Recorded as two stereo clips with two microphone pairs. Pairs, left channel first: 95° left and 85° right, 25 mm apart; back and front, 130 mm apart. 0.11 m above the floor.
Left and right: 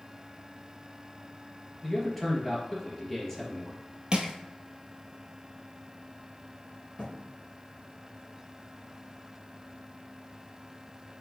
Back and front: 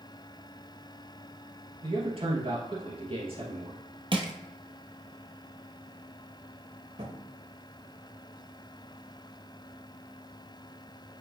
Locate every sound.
1.8 s a man speaking: 15° left, 2.5 m
4.1 s crushing: 45° right, 1.0 m
7.0 s a thud: 30° left, 3 m